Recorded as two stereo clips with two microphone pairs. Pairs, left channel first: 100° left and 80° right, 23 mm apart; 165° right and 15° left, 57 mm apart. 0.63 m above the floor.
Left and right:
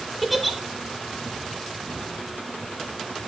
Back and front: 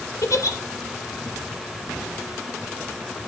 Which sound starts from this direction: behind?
A giggle, at 0.2 s.